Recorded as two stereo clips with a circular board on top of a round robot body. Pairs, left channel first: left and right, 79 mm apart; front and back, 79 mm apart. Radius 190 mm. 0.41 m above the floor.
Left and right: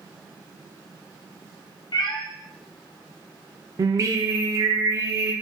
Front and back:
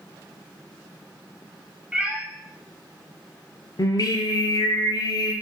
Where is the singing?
45° right, 0.5 m.